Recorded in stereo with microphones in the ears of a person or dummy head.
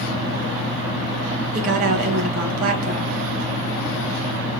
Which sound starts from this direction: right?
A woman speaking, at 1.5 s.